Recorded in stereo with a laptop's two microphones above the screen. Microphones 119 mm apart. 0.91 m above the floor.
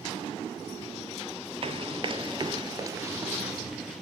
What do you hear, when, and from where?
1.6 s running footsteps: 50° right (ahead or behind), 1.3 m; by 4.0 s centre (ahead or behind), 1.3 m